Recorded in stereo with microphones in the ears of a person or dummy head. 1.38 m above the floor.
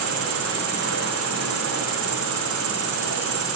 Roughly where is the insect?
Right.